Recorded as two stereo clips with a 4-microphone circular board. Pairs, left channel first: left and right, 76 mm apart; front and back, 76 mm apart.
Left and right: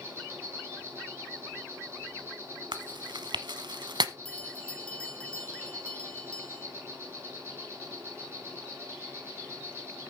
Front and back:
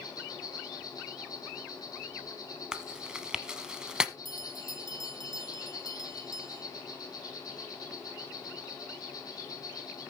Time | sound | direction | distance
0.0 | an insect | 35° right | 6.5 m
2.7 | chewing | 100° right | 0.9 m
4.2 | a bell | 165° left | 1.1 m